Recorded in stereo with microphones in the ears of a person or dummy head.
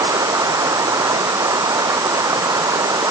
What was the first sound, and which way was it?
Running water, 15° right (ahead or behind).